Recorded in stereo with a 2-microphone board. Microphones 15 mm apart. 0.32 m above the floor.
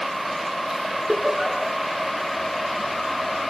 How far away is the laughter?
About 4.5 m.